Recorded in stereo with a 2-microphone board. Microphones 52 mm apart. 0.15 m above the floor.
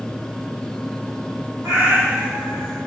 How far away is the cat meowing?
About 1.8 m.